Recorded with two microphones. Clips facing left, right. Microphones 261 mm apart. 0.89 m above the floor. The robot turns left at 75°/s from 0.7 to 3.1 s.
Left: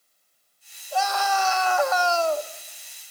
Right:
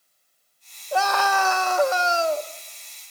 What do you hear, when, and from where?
0.9 s a scream: 70° right, 1.3 m; by 2.5 s 170° left, 1.3 m